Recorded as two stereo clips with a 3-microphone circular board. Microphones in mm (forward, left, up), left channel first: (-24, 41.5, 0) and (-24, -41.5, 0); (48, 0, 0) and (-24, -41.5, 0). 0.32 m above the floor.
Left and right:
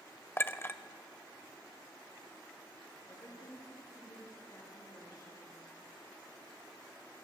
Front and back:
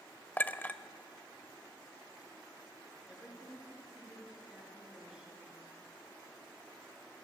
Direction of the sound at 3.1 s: 130° left.